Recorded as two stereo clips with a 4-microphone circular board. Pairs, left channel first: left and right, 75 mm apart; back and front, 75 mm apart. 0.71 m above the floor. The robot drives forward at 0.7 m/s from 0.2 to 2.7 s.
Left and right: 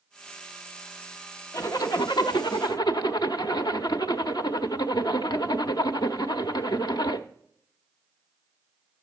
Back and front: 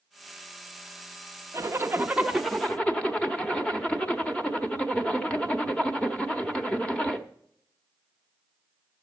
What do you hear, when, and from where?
1.5 s a zipper: 50° left, 1.0 m; by 7.2 s 105° left, 0.8 m